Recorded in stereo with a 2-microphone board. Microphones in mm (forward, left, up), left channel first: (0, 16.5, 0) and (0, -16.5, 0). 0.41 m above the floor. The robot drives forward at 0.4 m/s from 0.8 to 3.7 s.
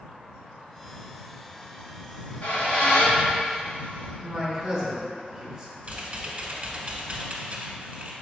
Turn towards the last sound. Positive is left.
turn(degrees=-45)  # may be behind; listen again after turning